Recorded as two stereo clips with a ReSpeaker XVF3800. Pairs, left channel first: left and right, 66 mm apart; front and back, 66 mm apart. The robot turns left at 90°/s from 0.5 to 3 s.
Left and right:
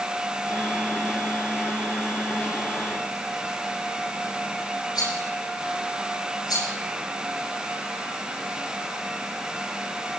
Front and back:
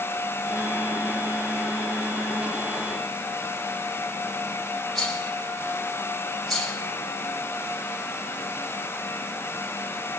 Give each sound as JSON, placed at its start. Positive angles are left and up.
{"t": 5.0, "sound": "a rattle", "azimuth_deg": 85, "distance_m": 9.5}